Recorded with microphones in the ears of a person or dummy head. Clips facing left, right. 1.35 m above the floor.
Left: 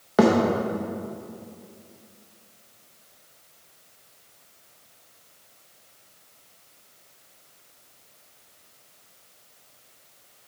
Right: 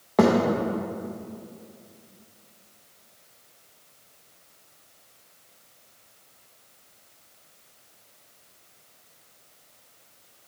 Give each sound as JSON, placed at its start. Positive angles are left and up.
{"t": 0.2, "sound": "a thud", "side_deg": 5, "distance_m": 0.6}